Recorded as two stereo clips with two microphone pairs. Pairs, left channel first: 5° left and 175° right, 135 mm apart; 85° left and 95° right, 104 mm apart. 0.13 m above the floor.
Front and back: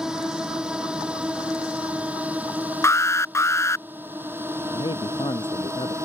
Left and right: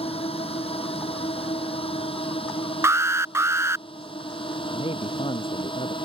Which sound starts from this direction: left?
A drone, at 0.0 s.